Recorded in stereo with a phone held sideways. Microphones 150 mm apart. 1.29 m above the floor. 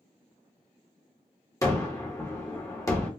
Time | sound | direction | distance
1.6 | a gunshot | 20° left (ahead or behind) | 1.0 m